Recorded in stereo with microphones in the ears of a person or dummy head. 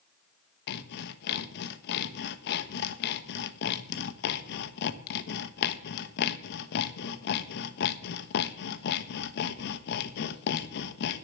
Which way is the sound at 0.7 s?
65° left (ahead or behind).